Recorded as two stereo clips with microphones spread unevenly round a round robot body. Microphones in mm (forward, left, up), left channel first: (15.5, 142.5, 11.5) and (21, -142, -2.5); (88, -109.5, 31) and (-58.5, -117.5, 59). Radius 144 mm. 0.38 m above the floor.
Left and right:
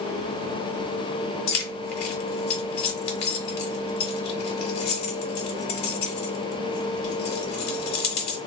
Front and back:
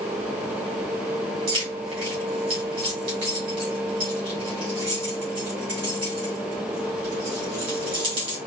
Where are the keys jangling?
120° left, 1.4 m.